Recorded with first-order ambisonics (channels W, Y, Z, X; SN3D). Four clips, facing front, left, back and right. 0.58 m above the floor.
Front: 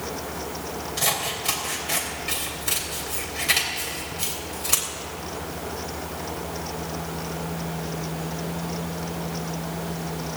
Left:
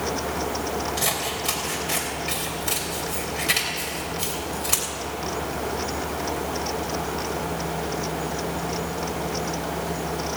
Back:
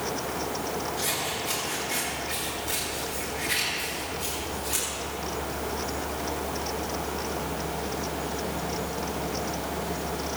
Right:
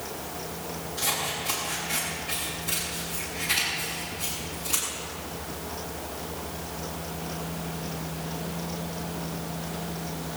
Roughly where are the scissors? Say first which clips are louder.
Left 3 dB, front 3 dB; ahead left.